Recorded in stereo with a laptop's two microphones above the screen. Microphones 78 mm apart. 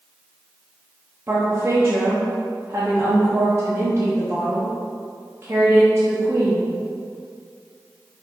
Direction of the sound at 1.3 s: 30° right (ahead or behind).